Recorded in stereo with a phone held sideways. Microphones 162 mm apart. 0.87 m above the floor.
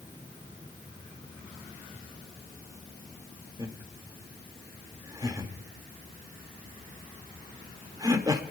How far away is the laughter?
About 1.8 m.